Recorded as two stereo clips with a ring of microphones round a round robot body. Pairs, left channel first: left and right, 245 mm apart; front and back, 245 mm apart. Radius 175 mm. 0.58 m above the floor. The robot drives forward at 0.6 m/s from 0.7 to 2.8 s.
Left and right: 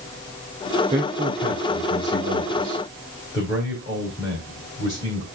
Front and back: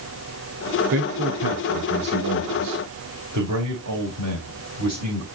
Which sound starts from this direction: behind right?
A man speaking, at 0.9 s.